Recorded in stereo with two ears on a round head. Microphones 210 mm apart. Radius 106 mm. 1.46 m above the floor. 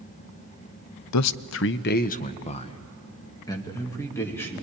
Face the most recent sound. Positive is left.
turn(degrees=10)  # may be behind; listen again after turning